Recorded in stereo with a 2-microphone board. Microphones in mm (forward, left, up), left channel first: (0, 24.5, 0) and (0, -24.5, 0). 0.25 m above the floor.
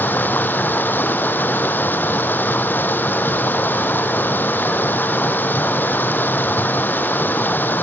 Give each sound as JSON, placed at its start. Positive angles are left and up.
{"t": 0.0, "sound": "running water", "side_deg": 40}